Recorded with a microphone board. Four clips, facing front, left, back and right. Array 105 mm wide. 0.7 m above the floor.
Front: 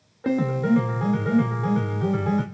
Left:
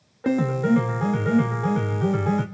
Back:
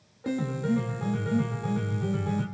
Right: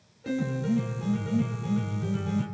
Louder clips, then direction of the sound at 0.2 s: Left 7 dB, front 7 dB; 60° left.